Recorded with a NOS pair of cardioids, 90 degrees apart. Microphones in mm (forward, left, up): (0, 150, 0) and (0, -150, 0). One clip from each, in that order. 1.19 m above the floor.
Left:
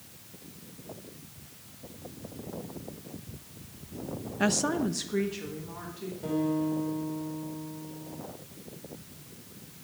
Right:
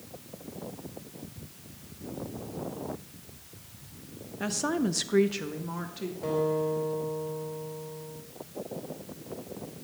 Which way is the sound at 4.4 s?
40° left.